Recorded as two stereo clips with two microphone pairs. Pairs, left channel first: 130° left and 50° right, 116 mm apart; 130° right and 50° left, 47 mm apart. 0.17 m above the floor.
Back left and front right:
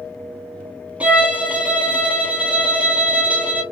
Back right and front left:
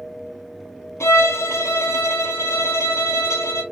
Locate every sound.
1.0 s a violin: 130° right, 0.9 m